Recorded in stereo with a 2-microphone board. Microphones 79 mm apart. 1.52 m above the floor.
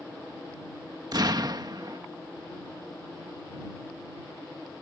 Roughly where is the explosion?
Right.